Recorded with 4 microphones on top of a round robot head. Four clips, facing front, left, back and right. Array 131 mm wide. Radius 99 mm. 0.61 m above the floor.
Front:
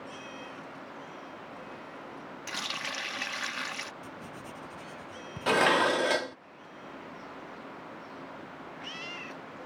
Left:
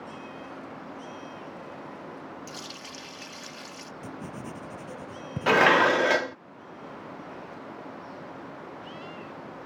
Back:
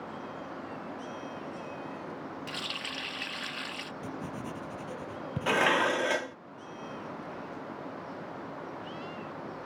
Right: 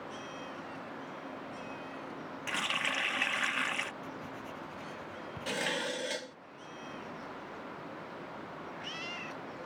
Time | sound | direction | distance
2.5 | a running tap | 60° right | ?
4.0 | writing | 115° left | ?
5.5 | dishes clattering | 75° left | ?